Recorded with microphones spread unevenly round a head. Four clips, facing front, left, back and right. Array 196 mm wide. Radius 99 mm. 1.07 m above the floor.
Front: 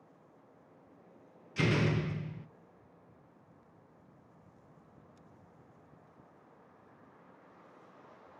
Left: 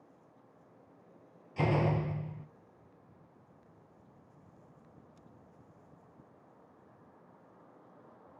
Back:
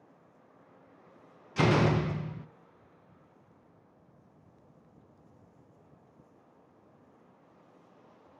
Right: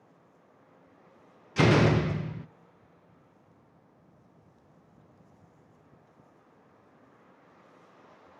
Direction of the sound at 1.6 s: 95° right.